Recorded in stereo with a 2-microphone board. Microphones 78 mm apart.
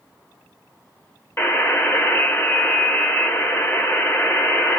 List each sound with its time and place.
1.4 s a buzzer: 30° left (ahead or behind), 1.9 m